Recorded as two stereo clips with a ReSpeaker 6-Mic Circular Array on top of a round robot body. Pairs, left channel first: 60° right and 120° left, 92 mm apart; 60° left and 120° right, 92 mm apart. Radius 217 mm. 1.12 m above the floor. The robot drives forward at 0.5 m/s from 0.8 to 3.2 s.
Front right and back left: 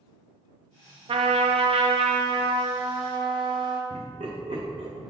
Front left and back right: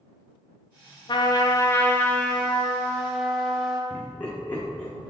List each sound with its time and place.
1.1 s a trumpet: 95° left, 0.6 m; by 3.8 s 150° left, 1.3 m
3.9 s laughter: 135° left, 1.3 m